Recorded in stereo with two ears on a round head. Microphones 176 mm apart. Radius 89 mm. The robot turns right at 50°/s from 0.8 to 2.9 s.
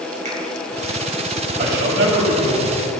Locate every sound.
0.2 s a finger snap: 35° right (ahead or behind), 4 m
1.6 s a man speaking: 125° right, 3.5 m; by 2.9 s 60° right, 3.5 m